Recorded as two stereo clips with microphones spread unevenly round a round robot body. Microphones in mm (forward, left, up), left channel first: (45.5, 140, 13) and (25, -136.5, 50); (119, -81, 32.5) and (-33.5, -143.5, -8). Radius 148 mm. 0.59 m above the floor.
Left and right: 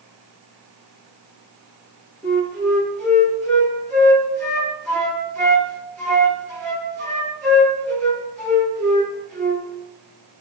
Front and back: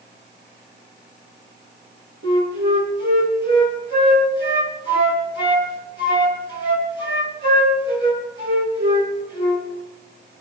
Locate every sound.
2.2 s a flute: 170° left, 6.5 m